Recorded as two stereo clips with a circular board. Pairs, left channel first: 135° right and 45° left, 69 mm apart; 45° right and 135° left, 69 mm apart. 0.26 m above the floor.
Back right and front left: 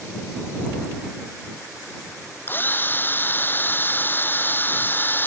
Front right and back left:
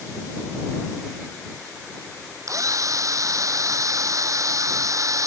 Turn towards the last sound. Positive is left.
turn(degrees=170)